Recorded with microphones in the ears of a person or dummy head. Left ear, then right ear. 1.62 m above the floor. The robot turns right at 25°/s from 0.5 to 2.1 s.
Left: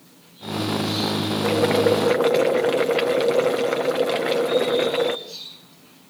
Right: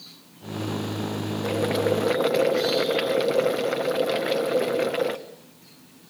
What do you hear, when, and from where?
1.4 s boiling: 30° left (ahead or behind), 1.2 m; by 5.2 s 15° left (ahead or behind), 1.2 m